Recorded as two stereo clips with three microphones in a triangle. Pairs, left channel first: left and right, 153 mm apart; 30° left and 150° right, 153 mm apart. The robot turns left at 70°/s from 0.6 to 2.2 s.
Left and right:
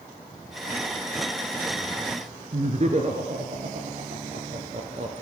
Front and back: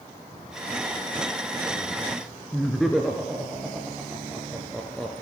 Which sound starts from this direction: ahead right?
Laughter, at 2.5 s.